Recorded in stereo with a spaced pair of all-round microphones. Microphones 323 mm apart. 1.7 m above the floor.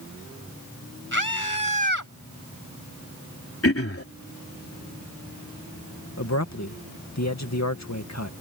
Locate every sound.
1.1 s a scream: 70° left (ahead or behind); by 2.1 s 65° left (ahead or behind)
3.6 s throat clearing: 45° left (ahead or behind)
6.2 s a man speaking: 55° left (ahead or behind)